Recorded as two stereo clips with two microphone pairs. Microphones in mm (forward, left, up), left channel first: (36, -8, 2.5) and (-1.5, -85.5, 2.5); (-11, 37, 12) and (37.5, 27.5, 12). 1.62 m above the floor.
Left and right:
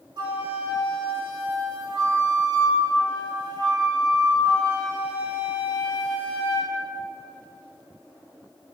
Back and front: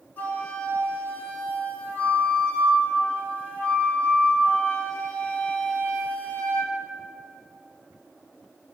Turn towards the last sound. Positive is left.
turn(degrees=-140)